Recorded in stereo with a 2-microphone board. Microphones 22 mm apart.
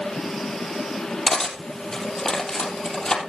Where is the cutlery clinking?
30° left (ahead or behind), 3 m.